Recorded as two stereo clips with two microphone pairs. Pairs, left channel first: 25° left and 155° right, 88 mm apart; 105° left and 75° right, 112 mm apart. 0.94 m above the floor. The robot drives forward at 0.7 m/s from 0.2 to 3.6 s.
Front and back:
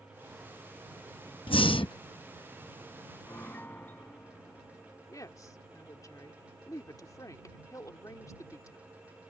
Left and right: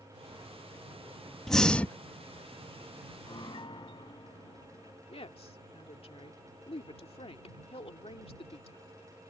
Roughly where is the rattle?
I don't hear a rattle.